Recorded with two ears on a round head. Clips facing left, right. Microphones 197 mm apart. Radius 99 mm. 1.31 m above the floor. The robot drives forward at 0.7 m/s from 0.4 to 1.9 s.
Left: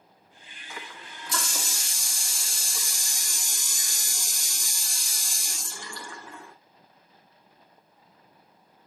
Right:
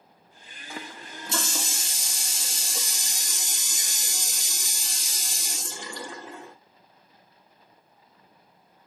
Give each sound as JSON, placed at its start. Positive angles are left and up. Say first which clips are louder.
{"t": 0.7, "sound": "a running tap", "louder": "right 4 dB", "side_deg": -30, "distance_m": 1.5}